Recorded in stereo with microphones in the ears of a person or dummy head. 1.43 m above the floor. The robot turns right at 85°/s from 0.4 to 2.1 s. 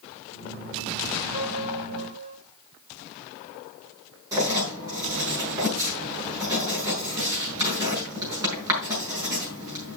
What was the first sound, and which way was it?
A piano, 145° right.